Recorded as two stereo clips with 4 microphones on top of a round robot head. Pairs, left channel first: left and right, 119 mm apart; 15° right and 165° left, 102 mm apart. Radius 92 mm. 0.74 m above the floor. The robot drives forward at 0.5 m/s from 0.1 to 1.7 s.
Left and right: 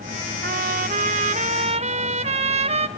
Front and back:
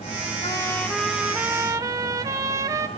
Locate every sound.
0.4 s a trumpet: 75° right, 0.7 m; by 2.9 s 125° right, 0.9 m